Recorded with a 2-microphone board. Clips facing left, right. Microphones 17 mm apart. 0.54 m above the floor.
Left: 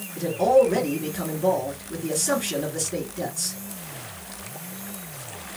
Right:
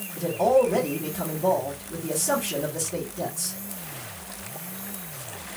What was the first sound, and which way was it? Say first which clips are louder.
A man speaking: left 2 dB; 30° left (ahead or behind).